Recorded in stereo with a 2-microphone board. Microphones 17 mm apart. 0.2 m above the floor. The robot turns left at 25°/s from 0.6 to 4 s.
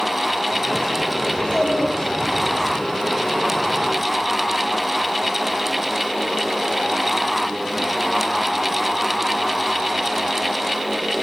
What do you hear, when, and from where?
1.3 s a child speaking: 60° left, 4.5 m; by 2.7 s 25° left, 4.5 m